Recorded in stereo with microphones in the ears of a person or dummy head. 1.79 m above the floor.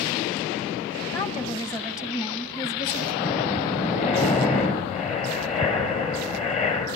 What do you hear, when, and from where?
1.1 s a woman speaking: 25° left (ahead or behind), 1.8 m
3.1 s breathing: 40° left (ahead or behind), 5.5 m